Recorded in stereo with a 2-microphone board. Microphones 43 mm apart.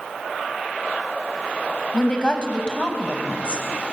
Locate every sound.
1.9 s a woman speaking: 20° left (ahead or behind), 1.1 m